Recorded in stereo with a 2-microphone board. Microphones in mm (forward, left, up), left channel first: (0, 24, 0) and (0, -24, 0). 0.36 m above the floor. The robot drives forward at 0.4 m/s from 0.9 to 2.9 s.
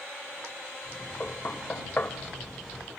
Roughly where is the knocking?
Left.